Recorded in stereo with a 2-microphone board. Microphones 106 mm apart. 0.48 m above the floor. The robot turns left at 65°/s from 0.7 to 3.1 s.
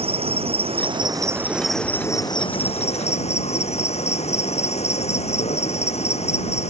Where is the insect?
115° right; by 6.7 s 90° left.